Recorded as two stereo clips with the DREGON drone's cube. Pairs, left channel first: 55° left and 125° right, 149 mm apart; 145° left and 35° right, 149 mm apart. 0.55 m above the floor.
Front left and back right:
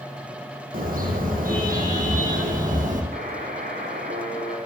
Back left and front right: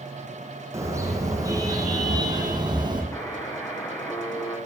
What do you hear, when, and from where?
0.7 s a car horn: 105° right, 9.5 m; by 3.0 s 95° right, 8.5 m
3.1 s a buzzer: 140° right, 8.5 m